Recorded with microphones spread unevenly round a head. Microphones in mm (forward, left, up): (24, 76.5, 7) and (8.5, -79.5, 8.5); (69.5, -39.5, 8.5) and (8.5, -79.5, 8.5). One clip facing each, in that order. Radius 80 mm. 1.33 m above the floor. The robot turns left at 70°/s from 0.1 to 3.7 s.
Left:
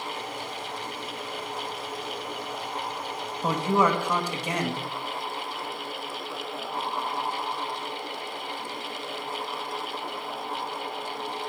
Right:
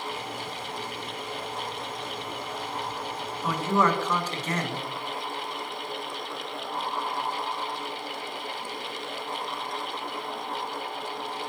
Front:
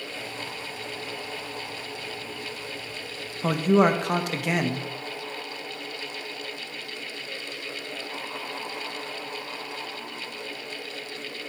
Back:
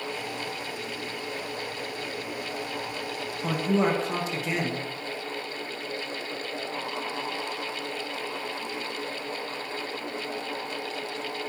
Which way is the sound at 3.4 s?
25° left.